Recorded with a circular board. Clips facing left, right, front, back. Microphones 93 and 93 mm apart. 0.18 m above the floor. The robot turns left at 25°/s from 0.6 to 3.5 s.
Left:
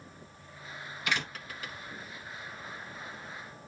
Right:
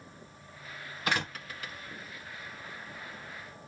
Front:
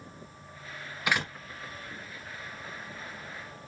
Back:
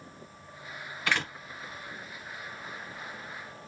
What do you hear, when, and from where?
1.1 s a door slam: 70° right, 1.5 m; by 1.3 s 75° right, 1.5 m